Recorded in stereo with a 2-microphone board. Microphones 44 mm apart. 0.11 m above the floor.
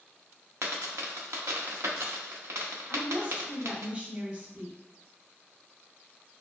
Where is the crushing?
No crushing in this recording.